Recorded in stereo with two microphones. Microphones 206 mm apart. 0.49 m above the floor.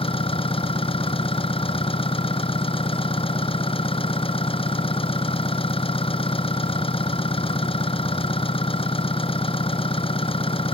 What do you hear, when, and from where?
0.0 s an engine running: 25° left (ahead or behind)